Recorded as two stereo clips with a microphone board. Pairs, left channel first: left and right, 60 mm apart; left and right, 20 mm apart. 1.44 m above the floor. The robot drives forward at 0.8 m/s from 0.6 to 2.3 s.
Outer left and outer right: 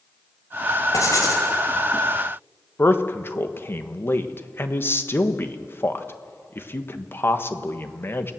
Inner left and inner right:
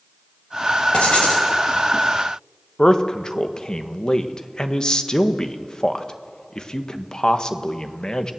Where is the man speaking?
40° left (ahead or behind), 1.4 m.